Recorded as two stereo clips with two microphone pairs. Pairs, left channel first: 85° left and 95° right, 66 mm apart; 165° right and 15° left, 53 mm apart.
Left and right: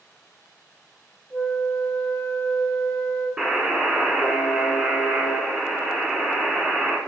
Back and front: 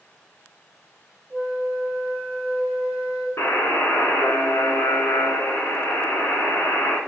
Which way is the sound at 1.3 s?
65° left.